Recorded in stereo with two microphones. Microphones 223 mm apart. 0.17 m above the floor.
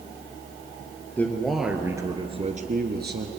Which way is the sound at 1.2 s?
10° left (ahead or behind).